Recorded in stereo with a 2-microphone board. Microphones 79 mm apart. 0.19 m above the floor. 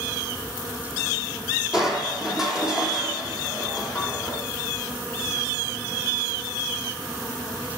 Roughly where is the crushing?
Centre.